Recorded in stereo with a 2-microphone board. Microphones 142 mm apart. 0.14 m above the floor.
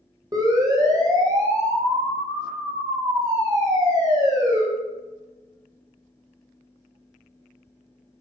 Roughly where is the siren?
Right.